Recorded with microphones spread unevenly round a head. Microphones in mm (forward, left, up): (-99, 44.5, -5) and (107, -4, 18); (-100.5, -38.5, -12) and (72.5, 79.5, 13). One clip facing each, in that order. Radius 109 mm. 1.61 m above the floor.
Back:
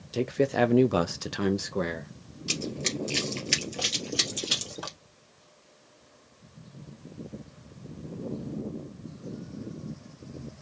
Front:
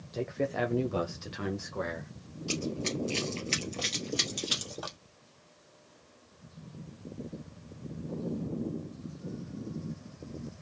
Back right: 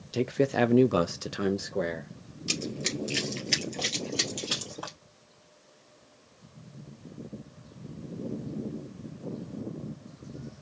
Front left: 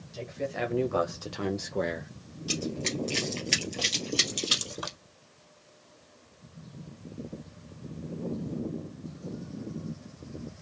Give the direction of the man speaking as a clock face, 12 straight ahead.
5 o'clock.